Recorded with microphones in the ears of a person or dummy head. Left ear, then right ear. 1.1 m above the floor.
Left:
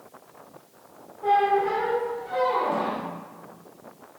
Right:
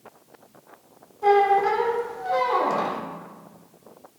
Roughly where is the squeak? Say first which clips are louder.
Right 3 dB; right.